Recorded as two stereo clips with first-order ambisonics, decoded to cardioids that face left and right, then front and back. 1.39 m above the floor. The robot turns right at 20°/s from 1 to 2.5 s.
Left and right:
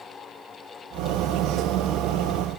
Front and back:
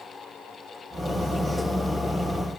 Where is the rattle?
No rattle in this recording.